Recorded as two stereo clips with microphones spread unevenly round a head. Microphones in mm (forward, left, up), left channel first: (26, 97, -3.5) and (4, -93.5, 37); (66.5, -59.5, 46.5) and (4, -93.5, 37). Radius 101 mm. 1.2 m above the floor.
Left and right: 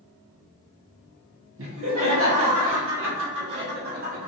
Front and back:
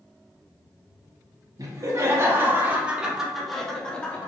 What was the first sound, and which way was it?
Laughter, 120° right.